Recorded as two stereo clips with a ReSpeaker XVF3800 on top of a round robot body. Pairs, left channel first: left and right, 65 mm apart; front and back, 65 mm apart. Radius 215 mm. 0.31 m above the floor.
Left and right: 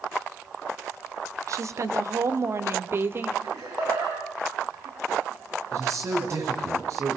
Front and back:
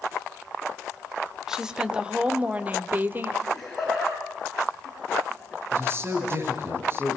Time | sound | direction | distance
1.5 | a woman speaking | 100° right | 2.5 m
3.4 | laughter | 85° right | 8 m
5.7 | a man speaking | 130° right | 7 m